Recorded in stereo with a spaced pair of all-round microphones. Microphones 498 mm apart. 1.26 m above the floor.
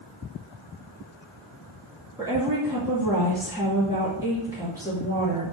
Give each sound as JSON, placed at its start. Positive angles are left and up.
{"t": 2.2, "sound": "a woman speaking", "side_deg": -5, "distance_m": 2.0}